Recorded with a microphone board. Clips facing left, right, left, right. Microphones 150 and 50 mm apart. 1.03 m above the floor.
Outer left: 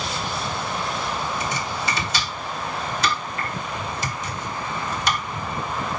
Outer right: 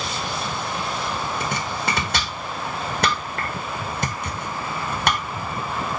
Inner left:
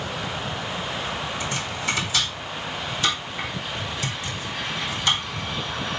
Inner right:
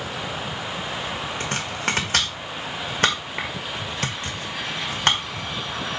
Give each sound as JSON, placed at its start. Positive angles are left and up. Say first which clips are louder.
{"t": 1.4, "sound": "chopping", "louder": "outer right 1 dB, inner right 1 dB", "side_deg": -60, "distance_m": 1.7}